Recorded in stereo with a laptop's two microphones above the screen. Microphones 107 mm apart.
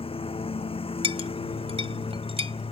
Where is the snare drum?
No snare drum in this recording.